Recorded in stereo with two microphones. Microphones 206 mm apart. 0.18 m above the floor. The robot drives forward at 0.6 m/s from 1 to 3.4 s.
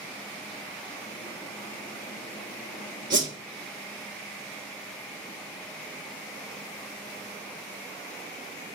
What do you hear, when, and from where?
3.1 s a whoosh: 70° right (ahead or behind), 0.9 m; by 3.3 s 60° right (ahead or behind), 1.0 m